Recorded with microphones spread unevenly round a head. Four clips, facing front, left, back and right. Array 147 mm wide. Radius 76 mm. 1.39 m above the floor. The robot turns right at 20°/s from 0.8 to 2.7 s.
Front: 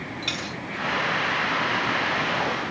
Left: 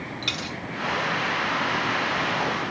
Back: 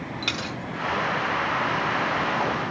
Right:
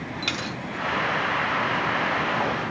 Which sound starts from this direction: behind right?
A dropped coin, at 0.2 s.